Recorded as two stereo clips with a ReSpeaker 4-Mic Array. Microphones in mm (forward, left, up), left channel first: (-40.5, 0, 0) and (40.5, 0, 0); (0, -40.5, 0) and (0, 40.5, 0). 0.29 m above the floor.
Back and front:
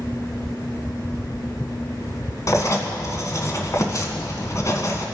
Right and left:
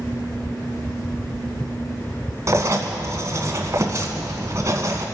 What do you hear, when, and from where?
2.5 s writing: 135° left, 1.6 m